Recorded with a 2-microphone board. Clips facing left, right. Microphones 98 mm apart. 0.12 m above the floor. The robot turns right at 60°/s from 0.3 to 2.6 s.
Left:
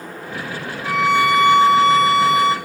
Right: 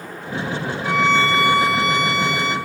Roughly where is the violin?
Ahead.